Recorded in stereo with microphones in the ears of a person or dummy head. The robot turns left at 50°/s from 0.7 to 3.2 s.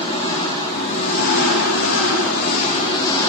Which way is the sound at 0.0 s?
145° left.